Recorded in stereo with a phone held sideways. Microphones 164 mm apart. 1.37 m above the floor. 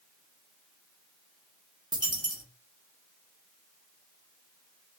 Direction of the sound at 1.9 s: 25° right (ahead or behind).